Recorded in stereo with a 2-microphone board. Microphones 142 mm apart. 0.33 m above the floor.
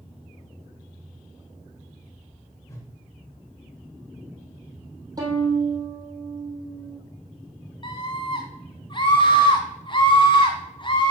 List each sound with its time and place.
2.7 s a whoosh: 25° left (ahead or behind), 1.4 m
5.2 s a violin: 25° right (ahead or behind), 3 m
7.8 s a scream: 35° left (ahead or behind), 2 m